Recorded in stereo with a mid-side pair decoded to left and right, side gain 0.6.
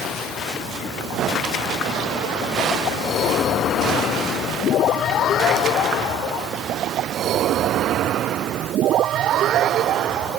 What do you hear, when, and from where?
Only background noise.